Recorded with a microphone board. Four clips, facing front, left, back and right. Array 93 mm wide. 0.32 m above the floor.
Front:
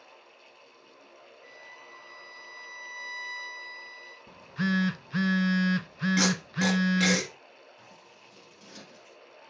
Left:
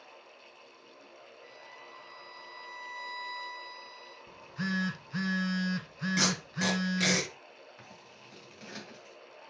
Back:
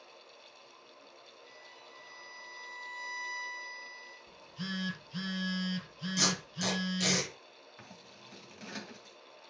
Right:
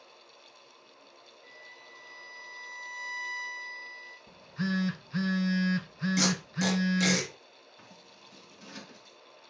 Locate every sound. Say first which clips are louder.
1.4 s a violin: left 2 dB, front 5 dB; 30° left, 4.5 m
4.3 s a phone buzzing: right 3 dB, front 12 dB; 5° left, 0.6 m
6.2 s tape being pulled: right 1 dB, front 6 dB; 25° left, 3.5 m
7.8 s scissors: left 2 dB, even; 150° left, 1.9 m